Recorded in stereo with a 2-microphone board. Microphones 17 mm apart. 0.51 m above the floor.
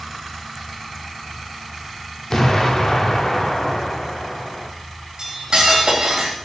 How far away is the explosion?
About 0.5 m.